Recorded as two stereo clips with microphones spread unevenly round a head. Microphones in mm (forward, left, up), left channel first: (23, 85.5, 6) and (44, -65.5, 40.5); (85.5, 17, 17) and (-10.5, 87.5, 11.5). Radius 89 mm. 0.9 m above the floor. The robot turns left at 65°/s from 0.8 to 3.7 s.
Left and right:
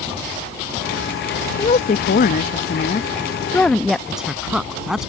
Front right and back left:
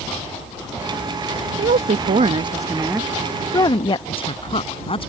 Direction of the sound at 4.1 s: 5° left.